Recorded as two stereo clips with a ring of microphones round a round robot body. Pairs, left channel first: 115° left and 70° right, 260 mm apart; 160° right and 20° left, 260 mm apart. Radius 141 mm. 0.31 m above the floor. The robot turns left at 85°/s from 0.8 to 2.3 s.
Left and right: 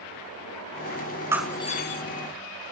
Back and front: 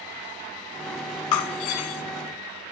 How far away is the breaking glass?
About 1.0 m.